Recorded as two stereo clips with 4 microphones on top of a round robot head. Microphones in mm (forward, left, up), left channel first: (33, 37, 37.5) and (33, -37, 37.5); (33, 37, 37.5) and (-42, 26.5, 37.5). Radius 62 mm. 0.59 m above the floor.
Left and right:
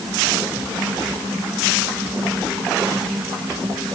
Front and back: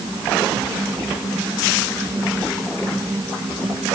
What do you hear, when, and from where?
Only background noise.